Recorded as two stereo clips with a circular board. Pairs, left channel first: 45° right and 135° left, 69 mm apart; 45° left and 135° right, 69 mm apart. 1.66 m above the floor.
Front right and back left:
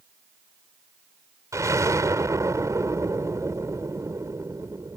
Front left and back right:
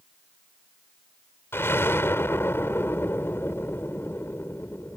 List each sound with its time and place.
1.5 s an explosion: 100° left